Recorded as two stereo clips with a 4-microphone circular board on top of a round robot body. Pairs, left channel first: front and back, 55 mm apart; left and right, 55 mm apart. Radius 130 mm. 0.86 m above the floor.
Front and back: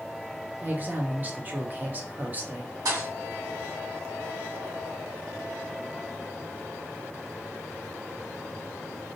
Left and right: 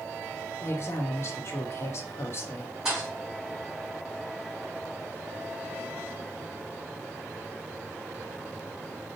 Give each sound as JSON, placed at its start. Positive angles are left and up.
{"t": 0.6, "sound": "a woman speaking", "azimuth_deg": 125, "distance_m": 1.3}
{"t": 2.9, "sound": "a thud", "azimuth_deg": -170, "distance_m": 3.0}